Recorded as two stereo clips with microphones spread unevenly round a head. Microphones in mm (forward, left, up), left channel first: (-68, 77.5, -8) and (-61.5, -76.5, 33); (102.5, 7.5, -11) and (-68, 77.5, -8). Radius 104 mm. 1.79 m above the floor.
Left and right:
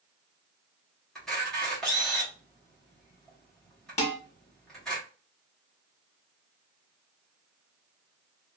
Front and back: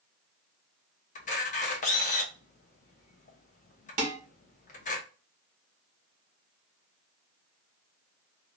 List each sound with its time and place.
1.1 s a camera shutter: 10° right, 0.9 m
4.0 s dishes clattering: 140° left, 1.2 m